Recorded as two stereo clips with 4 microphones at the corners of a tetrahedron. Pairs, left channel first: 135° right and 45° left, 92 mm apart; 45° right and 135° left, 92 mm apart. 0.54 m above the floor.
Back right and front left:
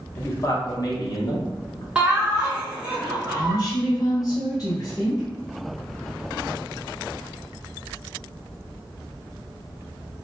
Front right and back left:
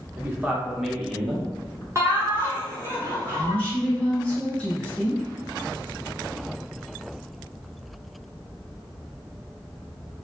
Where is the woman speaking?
110° right, 1.5 m.